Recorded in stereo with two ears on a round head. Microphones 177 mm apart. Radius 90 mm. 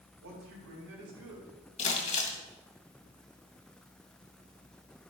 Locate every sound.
0.2 s a man speaking: 85° right, 4.5 m
1.8 s crumpling: 40° left (ahead or behind), 2 m